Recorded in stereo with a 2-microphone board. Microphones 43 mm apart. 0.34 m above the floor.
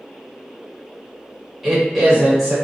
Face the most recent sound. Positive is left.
turn(degrees=-5)  # may be behind; listen again after turning